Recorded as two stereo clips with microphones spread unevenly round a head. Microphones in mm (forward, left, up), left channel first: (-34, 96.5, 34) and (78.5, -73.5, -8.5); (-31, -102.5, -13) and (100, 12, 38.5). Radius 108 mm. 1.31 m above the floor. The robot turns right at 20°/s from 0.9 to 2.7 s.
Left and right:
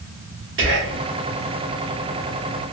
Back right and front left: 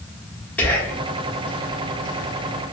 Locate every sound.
0.6 s whispering: 65° right, 1.0 m; by 1.0 s 60° right, 1.0 m